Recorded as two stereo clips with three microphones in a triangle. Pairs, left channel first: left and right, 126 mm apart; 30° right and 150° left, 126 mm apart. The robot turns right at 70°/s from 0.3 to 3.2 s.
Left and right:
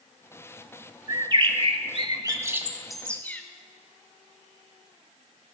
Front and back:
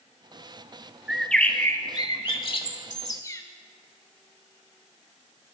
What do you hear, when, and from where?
1.1 s a bird: 130° right, 0.7 m; by 3.4 s 20° left, 0.7 m